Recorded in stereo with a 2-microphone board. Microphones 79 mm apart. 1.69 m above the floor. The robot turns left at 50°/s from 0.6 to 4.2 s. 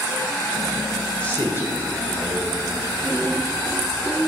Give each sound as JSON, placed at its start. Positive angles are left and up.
{"t": 1.2, "sound": "a man speaking", "side_deg": 15, "distance_m": 1.9}